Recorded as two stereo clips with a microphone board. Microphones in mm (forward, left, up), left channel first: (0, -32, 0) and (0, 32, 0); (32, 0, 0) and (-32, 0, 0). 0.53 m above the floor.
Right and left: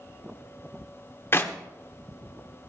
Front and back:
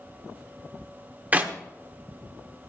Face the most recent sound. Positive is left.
turn(degrees=-125)